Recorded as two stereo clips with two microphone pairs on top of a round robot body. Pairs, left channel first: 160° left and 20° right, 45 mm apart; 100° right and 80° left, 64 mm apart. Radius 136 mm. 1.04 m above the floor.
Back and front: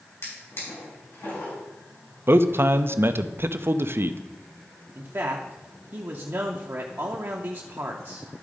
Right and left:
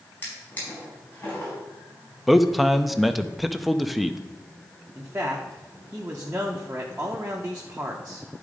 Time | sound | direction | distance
0.2 | a drawer | 170° right | 4.5 m
2.3 | a man speaking | 15° right | 0.6 m
5.0 | a man speaking | 10° left | 0.8 m